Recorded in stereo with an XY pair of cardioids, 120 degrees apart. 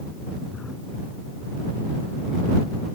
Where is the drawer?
30° left.